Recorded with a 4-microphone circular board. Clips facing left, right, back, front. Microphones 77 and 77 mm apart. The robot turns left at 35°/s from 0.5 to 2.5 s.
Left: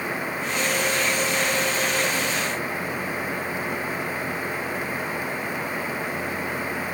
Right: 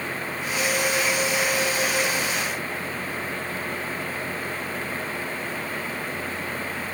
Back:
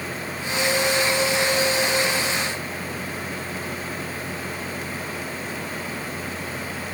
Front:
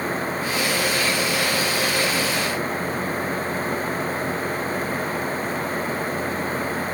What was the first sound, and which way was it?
Only background noise.